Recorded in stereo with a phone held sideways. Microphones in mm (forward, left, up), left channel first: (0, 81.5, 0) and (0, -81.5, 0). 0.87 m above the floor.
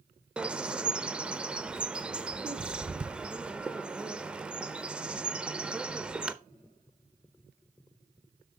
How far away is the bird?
About 0.5 m.